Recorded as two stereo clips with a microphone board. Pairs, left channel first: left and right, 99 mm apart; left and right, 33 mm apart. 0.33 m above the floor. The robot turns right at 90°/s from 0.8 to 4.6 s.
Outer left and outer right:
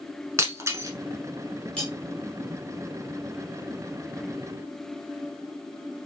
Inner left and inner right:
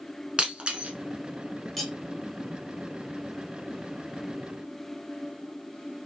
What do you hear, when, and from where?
0.4 s breaking glass: 30° right (ahead or behind), 0.8 m; by 0.9 s 40° right (ahead or behind), 0.8 m
1.8 s cutlery clinking: 10° left (ahead or behind), 1.4 m; by 1.9 s 5° right (ahead or behind), 1.4 m